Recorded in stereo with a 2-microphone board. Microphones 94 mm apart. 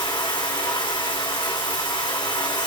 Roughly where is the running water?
Left.